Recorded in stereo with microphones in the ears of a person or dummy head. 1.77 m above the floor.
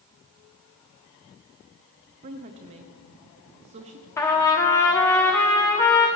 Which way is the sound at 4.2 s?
10° left (ahead or behind).